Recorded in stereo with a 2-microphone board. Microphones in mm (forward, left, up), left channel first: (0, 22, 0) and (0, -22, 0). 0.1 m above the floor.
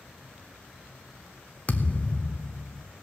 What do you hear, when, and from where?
1.7 s a thud: 30° left (ahead or behind), 1.0 m